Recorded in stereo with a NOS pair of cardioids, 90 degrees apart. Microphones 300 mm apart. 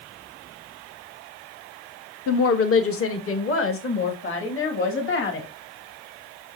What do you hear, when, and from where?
2.3 s a woman speaking: 50° left, 0.9 m; by 5.5 s 45° left, 3 m